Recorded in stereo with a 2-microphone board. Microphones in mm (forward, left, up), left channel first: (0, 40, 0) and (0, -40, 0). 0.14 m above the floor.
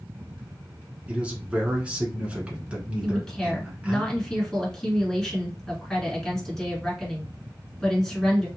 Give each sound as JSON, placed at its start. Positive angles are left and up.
{"t": 1.1, "sound": "a man speaking", "side_deg": -15, "distance_m": 1.2}
{"t": 3.0, "sound": "a woman speaking", "side_deg": 10, "distance_m": 1.6}